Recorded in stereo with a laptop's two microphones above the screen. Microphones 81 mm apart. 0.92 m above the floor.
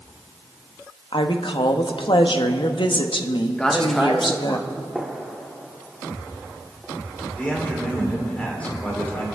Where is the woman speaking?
75° left (ahead or behind), 0.9 m.